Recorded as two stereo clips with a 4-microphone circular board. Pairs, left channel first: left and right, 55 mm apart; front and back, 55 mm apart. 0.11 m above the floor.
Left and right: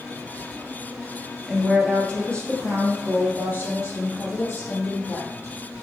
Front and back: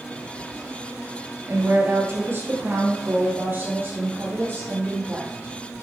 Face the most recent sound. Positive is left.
turn(degrees=125)